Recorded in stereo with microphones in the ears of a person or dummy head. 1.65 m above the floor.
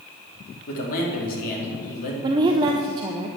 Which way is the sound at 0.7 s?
45° left (ahead or behind).